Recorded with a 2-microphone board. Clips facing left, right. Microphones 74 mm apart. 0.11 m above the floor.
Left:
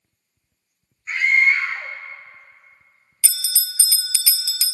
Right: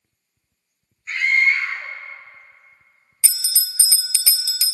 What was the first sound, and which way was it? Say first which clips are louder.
A scream: left 1 dB; 15° left (ahead or behind).